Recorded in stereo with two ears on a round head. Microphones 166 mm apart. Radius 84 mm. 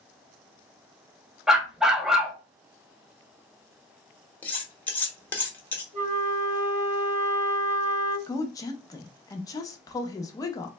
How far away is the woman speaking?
About 0.5 m.